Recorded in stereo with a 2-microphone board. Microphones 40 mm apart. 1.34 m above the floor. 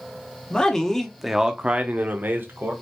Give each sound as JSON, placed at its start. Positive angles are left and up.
{"t": 0.5, "sound": "a man speaking", "side_deg": 20, "distance_m": 1.1}